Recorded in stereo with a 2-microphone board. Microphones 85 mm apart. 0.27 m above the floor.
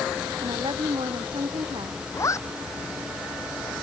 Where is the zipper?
35° left (ahead or behind).